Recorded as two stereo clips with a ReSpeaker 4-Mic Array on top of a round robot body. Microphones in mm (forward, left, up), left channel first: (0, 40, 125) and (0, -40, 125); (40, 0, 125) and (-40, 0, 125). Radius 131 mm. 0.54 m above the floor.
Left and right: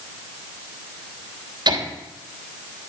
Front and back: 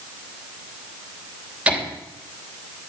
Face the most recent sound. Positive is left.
turn(degrees=-105)